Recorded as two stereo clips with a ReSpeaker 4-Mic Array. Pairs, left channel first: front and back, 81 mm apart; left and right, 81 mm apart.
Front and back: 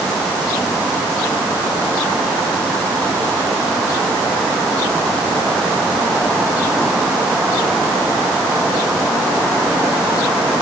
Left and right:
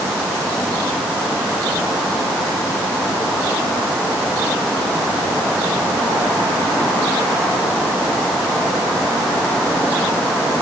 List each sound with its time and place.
Only background noise.